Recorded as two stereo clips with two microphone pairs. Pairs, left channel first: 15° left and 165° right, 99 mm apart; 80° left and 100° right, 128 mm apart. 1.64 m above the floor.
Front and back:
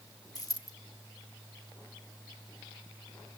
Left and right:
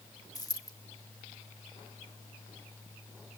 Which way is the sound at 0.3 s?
35° left.